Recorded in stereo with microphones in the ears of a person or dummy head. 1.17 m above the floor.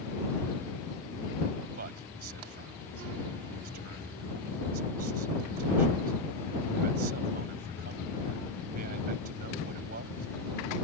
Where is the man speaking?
50° right (ahead or behind).